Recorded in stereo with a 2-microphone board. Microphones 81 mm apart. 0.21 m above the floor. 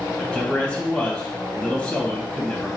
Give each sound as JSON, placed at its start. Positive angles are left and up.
{"t": 0.2, "sound": "a man speaking", "side_deg": 15, "distance_m": 1.1}